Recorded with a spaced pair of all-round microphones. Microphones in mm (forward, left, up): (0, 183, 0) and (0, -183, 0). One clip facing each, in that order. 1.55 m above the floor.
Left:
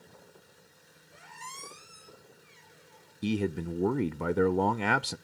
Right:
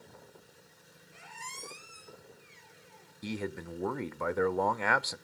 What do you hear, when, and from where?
1.1 s a squeak: 40° right (ahead or behind), 3.5 m
3.2 s a man speaking: 50° left (ahead or behind), 0.5 m